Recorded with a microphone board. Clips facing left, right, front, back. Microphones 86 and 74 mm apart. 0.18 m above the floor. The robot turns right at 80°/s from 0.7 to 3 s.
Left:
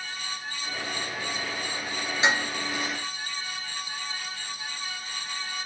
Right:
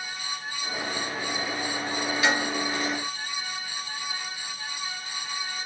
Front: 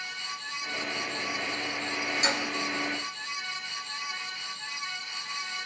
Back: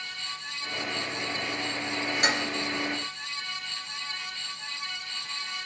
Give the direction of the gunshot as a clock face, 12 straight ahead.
No gunshot in this recording.